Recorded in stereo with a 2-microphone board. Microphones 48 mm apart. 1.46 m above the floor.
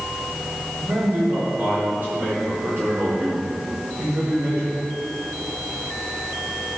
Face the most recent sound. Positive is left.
turn(degrees=-45)  # may be behind; listen again after turning